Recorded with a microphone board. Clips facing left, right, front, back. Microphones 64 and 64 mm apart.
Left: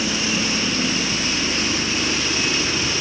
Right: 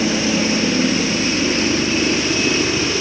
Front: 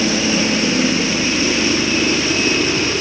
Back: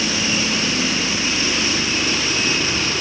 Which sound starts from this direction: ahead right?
A helicopter, at 0.0 s.